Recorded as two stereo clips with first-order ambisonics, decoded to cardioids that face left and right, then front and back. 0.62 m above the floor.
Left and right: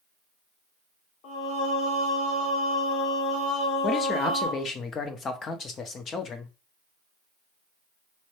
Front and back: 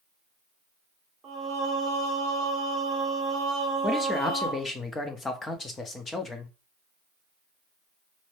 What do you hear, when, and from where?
1.2 s singing: 115° left, 1.4 m
3.8 s a man speaking: 60° left, 0.6 m